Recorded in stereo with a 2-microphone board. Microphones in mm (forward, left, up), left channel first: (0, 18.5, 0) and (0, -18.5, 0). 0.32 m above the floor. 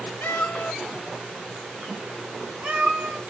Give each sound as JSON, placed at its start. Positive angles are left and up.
{"t": 0.2, "sound": "a cat meowing", "side_deg": 65, "distance_m": 0.6}